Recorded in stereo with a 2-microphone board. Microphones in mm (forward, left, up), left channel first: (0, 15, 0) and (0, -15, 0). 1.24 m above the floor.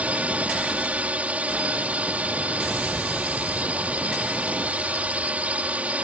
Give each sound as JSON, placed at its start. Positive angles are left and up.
{"t": 0.0, "sound": "a drone", "side_deg": -55}